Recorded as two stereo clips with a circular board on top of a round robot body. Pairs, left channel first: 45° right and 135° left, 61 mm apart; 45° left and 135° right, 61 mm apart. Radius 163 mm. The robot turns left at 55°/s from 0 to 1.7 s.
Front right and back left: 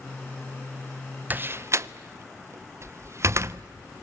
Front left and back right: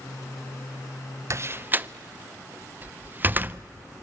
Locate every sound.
1.3 s a door slam: 170° right, 0.6 m; by 3.6 s 170° left, 0.6 m